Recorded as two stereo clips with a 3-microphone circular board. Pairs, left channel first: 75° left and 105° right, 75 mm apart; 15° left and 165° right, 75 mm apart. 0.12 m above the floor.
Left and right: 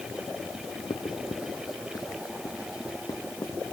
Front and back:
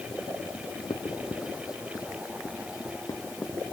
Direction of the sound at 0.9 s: 50° left.